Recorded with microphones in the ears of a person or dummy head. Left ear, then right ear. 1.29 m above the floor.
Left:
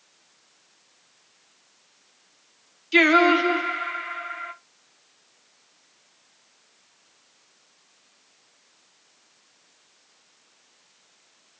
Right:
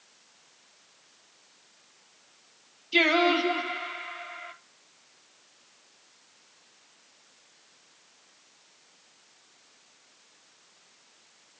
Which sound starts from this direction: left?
Singing, at 2.9 s.